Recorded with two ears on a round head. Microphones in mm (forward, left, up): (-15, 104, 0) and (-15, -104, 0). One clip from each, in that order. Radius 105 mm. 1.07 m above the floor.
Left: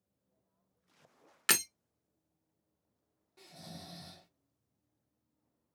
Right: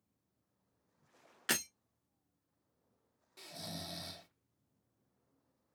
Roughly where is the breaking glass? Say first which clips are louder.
Left 5 dB; left.